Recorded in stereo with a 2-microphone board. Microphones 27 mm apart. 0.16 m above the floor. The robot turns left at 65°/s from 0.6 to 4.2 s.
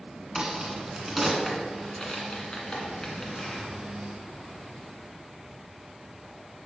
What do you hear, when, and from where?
0.3 s a crack: 30° right (ahead or behind), 1.7 m; by 3.6 s 20° left (ahead or behind), 1.7 m